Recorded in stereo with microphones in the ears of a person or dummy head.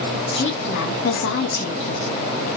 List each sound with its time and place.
0.3 s a woman speaking: 70° left (ahead or behind), 1.5 m